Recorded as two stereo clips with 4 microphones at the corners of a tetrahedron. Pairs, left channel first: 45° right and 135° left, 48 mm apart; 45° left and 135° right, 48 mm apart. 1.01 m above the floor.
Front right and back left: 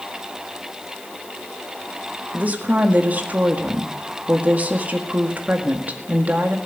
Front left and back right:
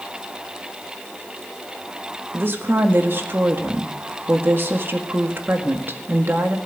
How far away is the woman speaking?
About 1.7 m.